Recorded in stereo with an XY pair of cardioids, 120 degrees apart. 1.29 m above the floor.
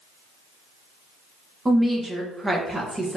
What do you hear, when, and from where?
1.6 s a woman speaking: 15° right, 1.2 m